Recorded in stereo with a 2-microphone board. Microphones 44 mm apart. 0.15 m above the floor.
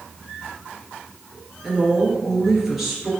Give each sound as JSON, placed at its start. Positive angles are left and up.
{"t": 1.6, "sound": "a woman speaking", "side_deg": -10, "distance_m": 2.5}